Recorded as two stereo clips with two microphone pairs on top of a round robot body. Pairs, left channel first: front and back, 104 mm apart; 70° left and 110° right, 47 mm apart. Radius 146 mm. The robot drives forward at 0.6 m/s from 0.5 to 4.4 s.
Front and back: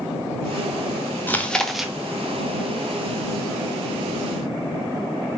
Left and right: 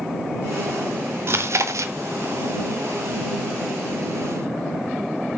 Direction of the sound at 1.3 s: 75° right.